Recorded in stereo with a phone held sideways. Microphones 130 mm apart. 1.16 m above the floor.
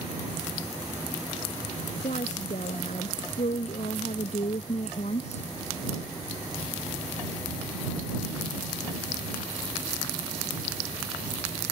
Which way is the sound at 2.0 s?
65° left (ahead or behind).